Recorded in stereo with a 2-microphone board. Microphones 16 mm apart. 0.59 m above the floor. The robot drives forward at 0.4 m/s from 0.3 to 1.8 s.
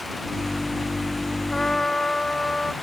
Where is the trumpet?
30° left (ahead or behind).